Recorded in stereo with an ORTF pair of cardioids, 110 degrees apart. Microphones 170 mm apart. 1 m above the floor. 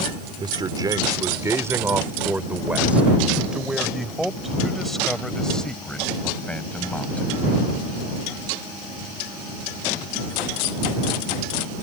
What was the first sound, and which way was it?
A man speaking, 25° right.